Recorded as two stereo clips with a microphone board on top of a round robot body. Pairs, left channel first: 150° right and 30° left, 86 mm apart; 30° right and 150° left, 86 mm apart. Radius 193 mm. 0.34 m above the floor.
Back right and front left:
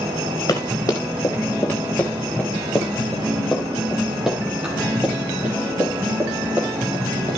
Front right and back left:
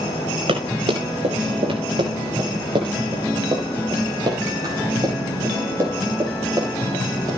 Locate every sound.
0.5 s running footsteps: 160° left, 4.5 m; by 7.3 s 90° left, 8.5 m